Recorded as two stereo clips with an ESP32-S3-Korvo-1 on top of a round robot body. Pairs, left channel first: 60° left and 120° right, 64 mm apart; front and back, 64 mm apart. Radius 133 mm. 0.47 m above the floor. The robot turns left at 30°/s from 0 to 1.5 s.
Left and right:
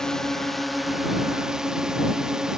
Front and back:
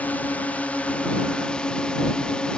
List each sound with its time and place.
0.0 s a drone: 5° right; by 2.6 s 50° right